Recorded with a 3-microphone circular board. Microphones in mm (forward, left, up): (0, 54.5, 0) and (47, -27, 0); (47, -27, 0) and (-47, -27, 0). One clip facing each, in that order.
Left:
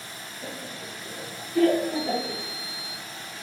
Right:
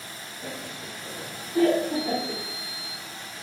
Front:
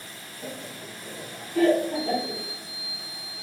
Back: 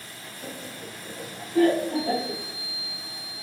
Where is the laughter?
20° left, 1.2 m; by 2.4 s 125° right, 3 m.